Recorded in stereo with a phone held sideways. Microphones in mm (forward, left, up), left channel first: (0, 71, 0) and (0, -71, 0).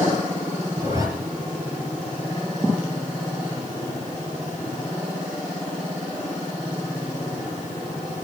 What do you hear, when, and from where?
0.8 s a zipper: 25° right (ahead or behind), 6 m